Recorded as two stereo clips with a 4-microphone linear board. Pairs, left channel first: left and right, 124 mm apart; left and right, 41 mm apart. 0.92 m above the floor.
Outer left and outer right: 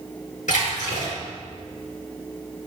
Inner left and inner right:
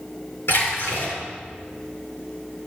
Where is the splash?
85° left, 5.5 m.